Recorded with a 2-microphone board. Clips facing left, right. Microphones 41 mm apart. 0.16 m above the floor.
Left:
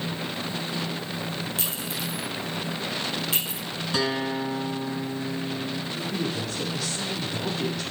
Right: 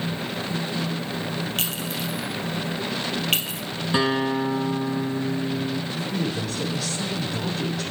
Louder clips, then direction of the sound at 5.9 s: Right 2 dB; centre (ahead or behind).